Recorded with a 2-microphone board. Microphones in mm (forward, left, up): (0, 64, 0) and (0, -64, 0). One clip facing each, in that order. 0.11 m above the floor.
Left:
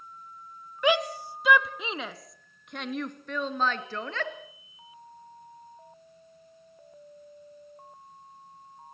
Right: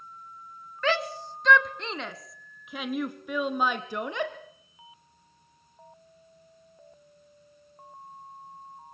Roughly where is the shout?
Centre.